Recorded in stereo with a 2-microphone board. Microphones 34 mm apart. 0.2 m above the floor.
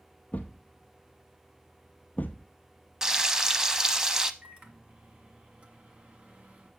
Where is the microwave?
40° right (ahead or behind), 1.5 m.